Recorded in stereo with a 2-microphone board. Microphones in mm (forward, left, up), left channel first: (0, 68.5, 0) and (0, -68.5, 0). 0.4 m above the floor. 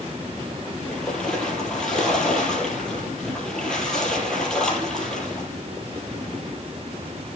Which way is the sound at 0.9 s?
5° left (ahead or behind).